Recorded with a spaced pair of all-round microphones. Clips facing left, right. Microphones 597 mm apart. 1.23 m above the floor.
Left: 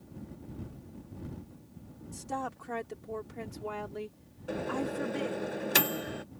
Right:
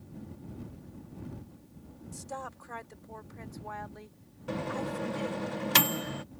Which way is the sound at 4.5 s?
30° right (ahead or behind).